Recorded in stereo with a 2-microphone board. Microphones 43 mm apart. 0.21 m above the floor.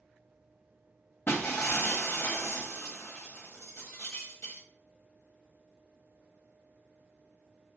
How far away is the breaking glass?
About 1.1 m.